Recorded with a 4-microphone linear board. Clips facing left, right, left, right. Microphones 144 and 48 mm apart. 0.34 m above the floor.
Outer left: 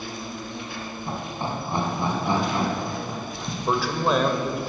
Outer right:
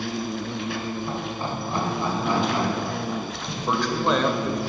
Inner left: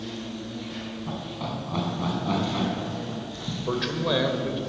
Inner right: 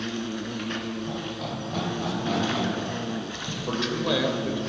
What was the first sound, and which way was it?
An insect, 80° right.